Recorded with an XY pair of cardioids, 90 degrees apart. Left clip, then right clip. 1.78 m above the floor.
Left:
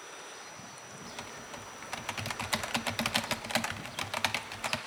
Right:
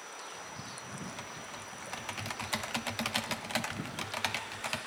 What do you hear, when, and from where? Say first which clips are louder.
1.1 s typing on a keyboard: even; 25° left, 0.8 m